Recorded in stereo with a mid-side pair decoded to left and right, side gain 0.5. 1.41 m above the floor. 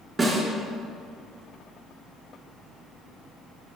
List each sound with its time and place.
0.2 s a snare drum: 30° right, 3.5 m